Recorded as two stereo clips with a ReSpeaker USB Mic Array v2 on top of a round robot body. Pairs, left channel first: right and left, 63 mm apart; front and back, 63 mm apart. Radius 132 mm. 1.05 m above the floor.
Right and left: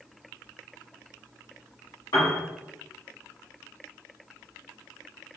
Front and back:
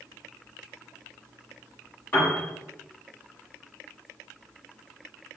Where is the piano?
65° right, 1.1 m.